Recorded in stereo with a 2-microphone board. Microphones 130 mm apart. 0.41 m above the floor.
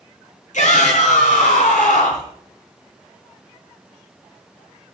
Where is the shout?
70° left (ahead or behind), 4.5 m.